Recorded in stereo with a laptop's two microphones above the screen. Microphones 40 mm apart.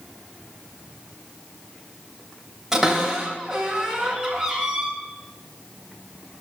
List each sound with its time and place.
2.7 s a cupboard door: 5° right (ahead or behind), 2 m